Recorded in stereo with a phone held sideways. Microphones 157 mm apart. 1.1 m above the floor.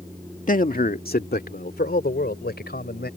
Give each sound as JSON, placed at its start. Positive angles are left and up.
{"t": 0.5, "sound": "a man speaking", "side_deg": 55}